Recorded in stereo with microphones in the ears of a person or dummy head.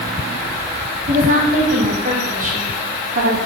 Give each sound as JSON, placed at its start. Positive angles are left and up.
{"t": 1.1, "sound": "a woman speaking", "side_deg": -45, "distance_m": 4.0}